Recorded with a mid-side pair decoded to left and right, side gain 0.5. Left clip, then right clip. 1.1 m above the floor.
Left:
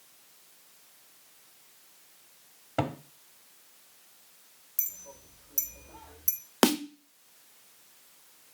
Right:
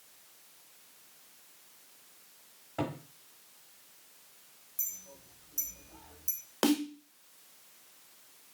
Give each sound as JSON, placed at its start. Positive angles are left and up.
{"t": 2.8, "sound": "a cupboard door", "azimuth_deg": 60, "distance_m": 1.2}
{"t": 4.8, "sound": "a clink", "azimuth_deg": 70, "distance_m": 1.1}
{"t": 6.6, "sound": "a snare drum", "azimuth_deg": 50, "distance_m": 0.7}